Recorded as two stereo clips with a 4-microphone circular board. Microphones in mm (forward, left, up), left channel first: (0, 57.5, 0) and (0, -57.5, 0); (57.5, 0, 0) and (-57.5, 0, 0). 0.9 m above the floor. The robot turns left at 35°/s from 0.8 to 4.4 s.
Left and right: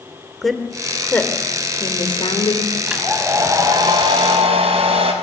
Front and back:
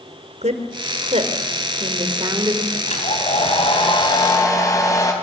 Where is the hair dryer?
5° right, 5 m; by 5.1 s 60° right, 5 m.